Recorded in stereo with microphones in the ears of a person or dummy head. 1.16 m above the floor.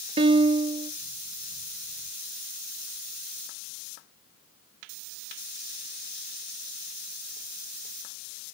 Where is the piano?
25° right (ahead or behind), 0.5 m.